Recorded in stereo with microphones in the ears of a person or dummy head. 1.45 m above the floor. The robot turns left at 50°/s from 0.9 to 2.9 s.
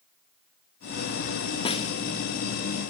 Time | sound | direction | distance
1.6 | a snare drum | 35° left (ahead or behind) | 1.6 m